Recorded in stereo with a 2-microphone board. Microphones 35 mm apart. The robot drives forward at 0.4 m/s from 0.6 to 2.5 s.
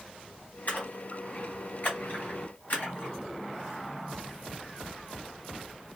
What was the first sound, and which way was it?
A splash, 55° left (ahead or behind).